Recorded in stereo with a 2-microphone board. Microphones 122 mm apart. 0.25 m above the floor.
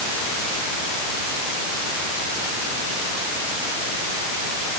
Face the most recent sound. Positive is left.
No sound to turn to.